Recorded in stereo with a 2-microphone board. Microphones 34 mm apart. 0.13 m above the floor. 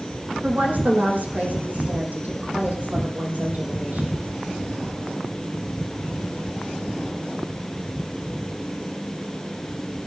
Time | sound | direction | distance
0.4 | a woman speaking | 55° right (ahead or behind) | 5.5 m